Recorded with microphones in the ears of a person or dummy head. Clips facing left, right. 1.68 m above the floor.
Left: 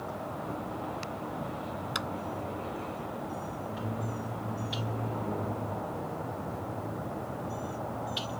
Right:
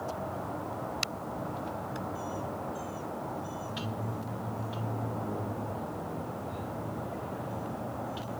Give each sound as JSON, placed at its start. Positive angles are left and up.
{"t": 1.9, "sound": "a clap", "side_deg": 85}